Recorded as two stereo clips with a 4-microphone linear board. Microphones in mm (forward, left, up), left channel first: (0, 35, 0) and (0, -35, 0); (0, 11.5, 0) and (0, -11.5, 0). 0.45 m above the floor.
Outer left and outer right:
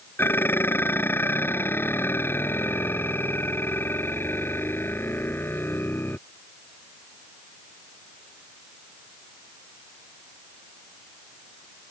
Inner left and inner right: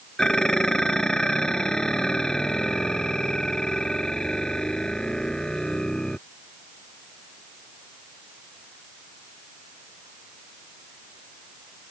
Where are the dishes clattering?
30° left (ahead or behind).